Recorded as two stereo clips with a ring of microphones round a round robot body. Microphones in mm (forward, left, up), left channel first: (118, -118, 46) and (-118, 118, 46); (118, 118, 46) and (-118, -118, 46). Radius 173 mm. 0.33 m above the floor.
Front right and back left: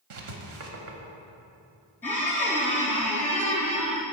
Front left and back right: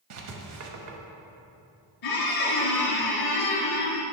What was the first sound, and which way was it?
Writing, 175° right.